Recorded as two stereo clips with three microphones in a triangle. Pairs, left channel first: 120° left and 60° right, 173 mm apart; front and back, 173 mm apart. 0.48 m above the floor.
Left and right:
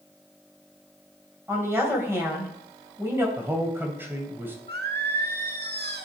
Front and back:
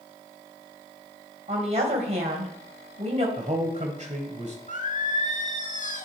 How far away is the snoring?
No snoring in this recording.